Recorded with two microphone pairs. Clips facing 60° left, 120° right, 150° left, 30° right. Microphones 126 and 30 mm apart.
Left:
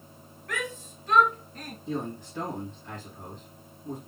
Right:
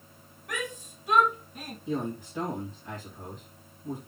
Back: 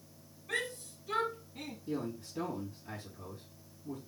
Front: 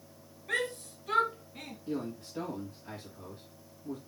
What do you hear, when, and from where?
0.5 s a shout: 45° right, 2.5 m; by 1.8 s 35° right, 1.5 m
1.9 s a man speaking: 35° right, 2.5 m